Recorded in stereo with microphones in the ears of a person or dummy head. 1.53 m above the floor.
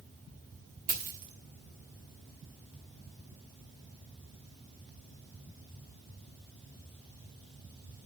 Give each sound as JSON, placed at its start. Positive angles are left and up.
{"t": 0.9, "sound": "a dropped coin", "side_deg": -45, "distance_m": 1.6}